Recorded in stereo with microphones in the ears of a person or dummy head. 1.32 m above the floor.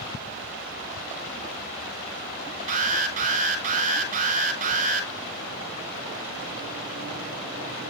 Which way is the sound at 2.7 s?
40° right (ahead or behind).